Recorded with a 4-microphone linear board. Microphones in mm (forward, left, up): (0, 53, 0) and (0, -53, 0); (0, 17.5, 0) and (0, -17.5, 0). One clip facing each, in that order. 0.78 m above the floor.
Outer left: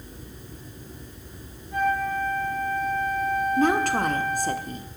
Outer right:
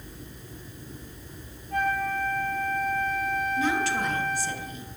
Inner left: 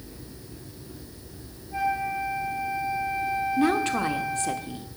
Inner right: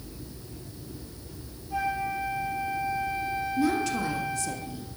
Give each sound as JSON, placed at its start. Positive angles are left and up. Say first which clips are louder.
{"t": 1.7, "sound": "a flute", "louder": "outer left 2 dB, inner left 2 dB", "side_deg": -60, "distance_m": 7.0}
{"t": 3.6, "sound": "a woman speaking", "louder": "outer left 6 dB, inner left 2 dB", "side_deg": 50, "distance_m": 1.2}